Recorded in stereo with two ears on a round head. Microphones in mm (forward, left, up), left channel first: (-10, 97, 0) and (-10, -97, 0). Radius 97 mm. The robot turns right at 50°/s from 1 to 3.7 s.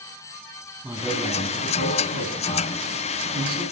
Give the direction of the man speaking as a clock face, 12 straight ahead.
6 o'clock.